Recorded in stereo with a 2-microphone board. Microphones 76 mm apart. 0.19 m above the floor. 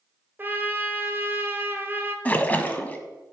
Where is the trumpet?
25° right (ahead or behind), 1.7 m.